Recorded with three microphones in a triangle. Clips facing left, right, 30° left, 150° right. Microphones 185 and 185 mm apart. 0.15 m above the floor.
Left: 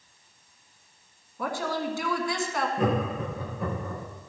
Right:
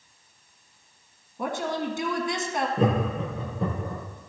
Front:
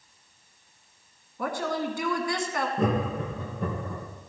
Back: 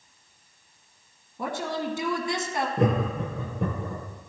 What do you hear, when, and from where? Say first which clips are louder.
1.4 s a woman speaking: right 1 dB, front 1 dB; 125° right, 1.6 m
2.8 s laughter: right 2 dB, back 2 dB; 150° right, 4 m